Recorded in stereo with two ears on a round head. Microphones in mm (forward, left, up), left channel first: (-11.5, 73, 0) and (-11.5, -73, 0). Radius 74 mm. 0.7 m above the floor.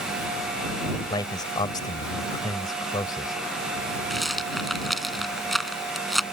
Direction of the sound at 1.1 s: 25° left (ahead or behind).